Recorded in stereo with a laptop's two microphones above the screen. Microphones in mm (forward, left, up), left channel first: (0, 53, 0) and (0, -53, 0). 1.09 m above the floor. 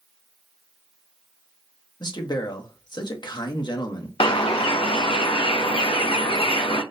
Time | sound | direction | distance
2.0 | a man speaking | 45° left (ahead or behind) | 0.8 m
4.2 | a bird | 60° left (ahead or behind) | 0.5 m